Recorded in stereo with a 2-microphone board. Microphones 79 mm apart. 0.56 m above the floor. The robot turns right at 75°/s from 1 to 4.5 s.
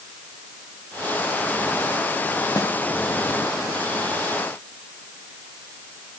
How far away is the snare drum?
About 2.5 m.